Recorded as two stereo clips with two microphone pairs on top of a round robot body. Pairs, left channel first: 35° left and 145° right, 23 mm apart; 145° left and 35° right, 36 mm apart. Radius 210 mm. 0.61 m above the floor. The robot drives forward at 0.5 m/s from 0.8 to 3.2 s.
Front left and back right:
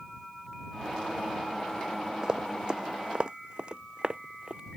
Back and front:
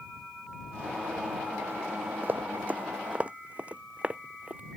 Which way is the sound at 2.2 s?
80° right.